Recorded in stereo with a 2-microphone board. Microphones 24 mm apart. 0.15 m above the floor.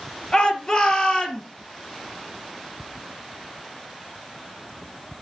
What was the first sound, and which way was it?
A shout, 35° left (ahead or behind).